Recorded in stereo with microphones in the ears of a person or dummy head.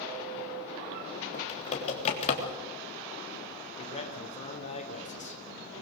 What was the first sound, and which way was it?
Typing on a keyboard, 35° left (ahead or behind).